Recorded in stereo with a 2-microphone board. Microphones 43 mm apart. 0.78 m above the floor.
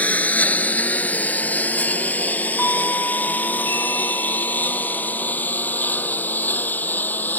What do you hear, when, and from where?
0.0 s a lawn mower: 35° left (ahead or behind); by 7.4 s 45° left (ahead or behind)
2.6 s a doorbell: 70° left (ahead or behind)